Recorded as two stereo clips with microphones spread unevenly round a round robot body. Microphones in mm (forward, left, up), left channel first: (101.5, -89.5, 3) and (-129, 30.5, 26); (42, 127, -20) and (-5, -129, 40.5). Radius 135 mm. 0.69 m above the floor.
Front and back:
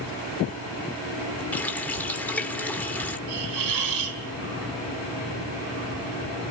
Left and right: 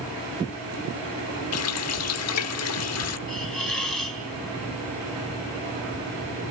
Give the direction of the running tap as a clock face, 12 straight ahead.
10 o'clock.